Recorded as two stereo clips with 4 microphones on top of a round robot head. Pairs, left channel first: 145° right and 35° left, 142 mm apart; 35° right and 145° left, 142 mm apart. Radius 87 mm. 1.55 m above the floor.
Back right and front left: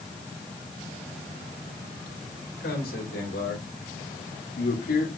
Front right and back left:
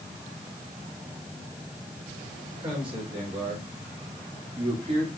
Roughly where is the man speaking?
Behind.